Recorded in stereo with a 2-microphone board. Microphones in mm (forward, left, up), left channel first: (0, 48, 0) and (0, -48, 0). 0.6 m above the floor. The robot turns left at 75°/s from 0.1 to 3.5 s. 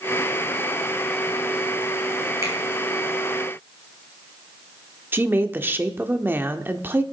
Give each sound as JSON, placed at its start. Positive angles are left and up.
{"t": 2.4, "sound": "a finger snap", "side_deg": -35, "distance_m": 4.0}
{"t": 5.1, "sound": "a woman speaking", "side_deg": -25, "distance_m": 1.0}